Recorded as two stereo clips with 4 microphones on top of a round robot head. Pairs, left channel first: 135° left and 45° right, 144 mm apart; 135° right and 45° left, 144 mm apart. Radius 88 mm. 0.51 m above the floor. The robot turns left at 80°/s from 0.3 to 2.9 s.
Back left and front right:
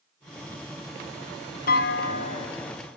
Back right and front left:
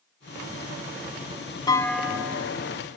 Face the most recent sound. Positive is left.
turn(degrees=60)